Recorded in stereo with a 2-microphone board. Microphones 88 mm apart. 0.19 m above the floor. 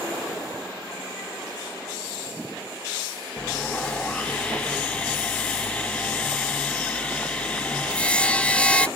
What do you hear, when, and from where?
3.4 s sawing: 15° left (ahead or behind), 0.8 m